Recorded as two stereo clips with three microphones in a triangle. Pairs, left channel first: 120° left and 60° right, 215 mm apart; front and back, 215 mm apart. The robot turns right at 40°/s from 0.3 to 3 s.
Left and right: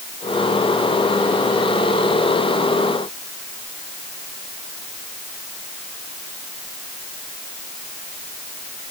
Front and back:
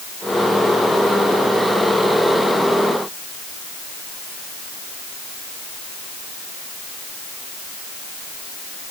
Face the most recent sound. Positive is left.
No sound to turn to.